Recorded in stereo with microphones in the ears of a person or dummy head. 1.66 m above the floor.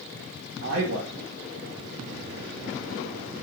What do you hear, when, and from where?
0.6 s a man speaking: 60° right (ahead or behind), 2 m